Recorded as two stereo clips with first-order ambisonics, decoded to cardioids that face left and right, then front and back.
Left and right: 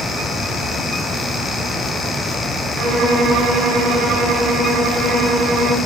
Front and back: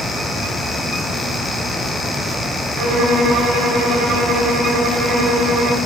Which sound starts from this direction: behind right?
A violin, at 2.8 s.